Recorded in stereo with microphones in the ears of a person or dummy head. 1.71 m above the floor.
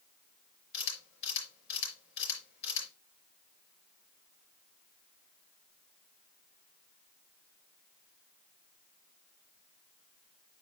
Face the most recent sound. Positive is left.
turn(degrees=75)  # may be behind; listen again after turning